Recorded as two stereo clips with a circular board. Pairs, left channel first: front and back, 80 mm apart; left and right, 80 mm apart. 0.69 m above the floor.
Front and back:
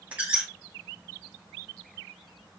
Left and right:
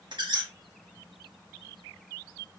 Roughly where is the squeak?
Right.